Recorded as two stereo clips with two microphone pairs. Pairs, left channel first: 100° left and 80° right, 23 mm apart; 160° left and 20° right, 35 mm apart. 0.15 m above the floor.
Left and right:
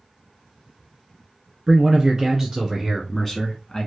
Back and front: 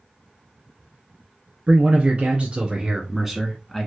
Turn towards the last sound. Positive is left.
turn(degrees=100)